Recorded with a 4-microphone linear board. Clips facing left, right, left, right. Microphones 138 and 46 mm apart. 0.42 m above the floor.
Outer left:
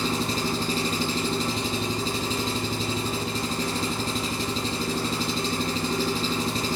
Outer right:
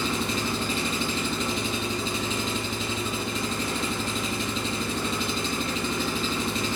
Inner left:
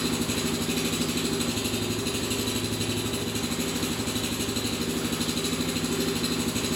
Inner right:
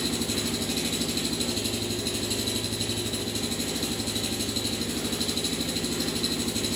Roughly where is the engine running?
Left.